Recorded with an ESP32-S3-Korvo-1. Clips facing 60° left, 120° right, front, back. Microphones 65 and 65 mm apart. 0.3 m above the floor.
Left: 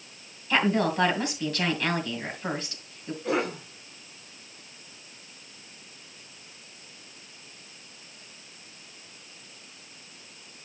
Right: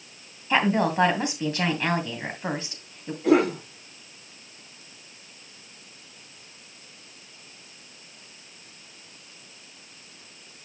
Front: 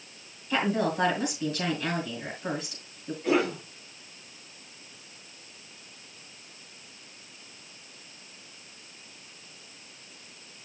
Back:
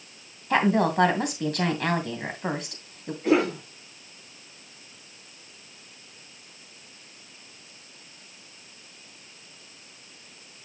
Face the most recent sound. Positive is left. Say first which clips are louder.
# right 8 dB, back 3 dB
turn(degrees=-115)